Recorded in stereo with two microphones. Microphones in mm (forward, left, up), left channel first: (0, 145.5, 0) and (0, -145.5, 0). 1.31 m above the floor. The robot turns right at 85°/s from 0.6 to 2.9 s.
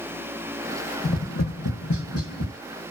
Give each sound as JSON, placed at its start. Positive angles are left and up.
{"t": 1.0, "sound": "tapping", "side_deg": 30, "distance_m": 0.6}